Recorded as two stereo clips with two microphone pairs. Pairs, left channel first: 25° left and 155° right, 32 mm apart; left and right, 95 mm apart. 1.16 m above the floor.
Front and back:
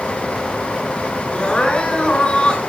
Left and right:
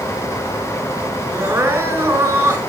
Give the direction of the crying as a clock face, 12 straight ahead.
1 o'clock.